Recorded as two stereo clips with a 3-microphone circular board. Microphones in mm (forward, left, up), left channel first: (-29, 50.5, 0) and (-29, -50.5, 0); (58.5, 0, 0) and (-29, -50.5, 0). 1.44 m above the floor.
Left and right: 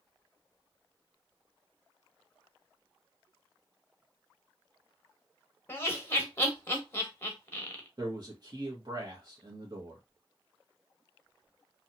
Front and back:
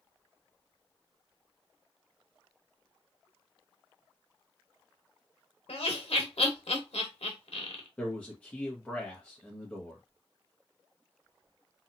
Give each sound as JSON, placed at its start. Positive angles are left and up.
{"t": 5.7, "sound": "laughter", "azimuth_deg": 25, "distance_m": 1.1}
{"t": 8.0, "sound": "a man speaking", "azimuth_deg": -50, "distance_m": 0.9}